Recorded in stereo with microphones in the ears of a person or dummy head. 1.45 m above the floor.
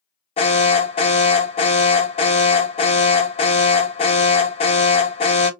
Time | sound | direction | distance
0.4 | an alarm | 30° left (ahead or behind) | 0.9 m